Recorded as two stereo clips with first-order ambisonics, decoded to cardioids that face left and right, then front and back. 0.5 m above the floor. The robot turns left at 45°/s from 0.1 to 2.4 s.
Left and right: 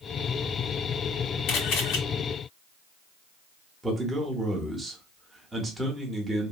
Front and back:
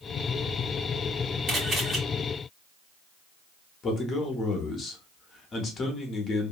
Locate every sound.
1.5 s a camera shutter: 130° left, 1.4 m; by 2.0 s 105° left, 1.4 m
3.8 s a man speaking: 20° right, 0.7 m